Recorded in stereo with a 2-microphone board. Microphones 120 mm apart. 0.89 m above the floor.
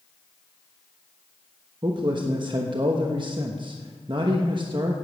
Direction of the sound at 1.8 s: 40° right (ahead or behind).